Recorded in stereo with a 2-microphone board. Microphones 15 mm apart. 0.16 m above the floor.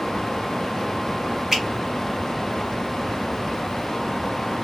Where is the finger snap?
20° right (ahead or behind), 1.3 m.